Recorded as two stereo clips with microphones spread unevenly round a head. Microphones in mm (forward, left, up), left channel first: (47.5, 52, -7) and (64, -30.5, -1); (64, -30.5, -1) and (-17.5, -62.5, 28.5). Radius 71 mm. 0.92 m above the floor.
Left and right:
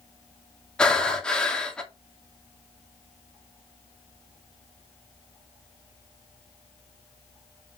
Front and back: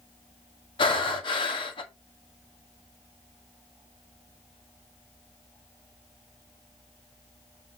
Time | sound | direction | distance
0.8 | breathing | 25° left | 2.5 m